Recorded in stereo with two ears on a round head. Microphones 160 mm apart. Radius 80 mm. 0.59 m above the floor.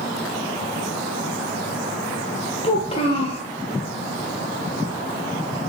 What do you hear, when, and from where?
2.6 s a child speaking: 30° left (ahead or behind), 1.1 m